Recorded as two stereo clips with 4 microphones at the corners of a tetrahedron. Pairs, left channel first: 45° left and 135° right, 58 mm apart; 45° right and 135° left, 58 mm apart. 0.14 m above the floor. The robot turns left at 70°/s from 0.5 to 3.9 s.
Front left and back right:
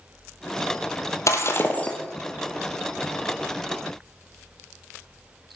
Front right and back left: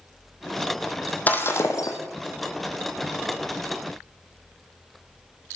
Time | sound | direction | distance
1.3 | breaking glass | 20° left | 1.6 m